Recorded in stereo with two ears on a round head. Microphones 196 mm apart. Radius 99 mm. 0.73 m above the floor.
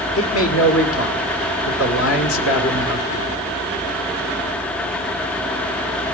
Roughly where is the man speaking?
Left.